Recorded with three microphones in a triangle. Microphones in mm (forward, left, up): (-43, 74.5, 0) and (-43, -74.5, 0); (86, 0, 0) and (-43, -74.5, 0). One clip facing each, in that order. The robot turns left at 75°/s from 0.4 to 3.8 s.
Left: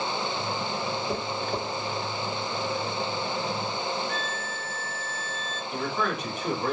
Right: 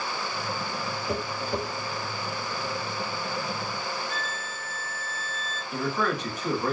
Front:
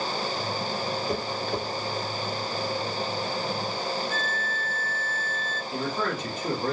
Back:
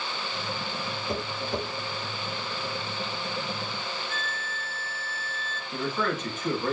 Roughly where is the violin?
Left.